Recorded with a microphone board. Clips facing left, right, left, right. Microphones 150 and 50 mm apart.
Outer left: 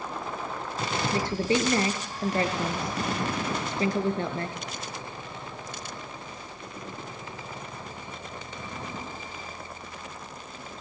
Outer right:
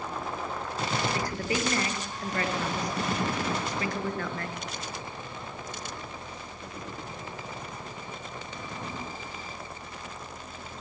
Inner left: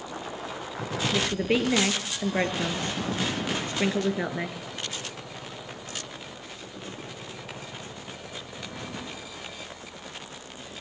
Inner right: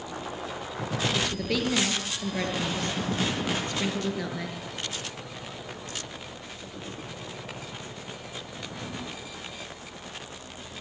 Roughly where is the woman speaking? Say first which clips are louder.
Outer left 5 dB, inner left 3 dB; left.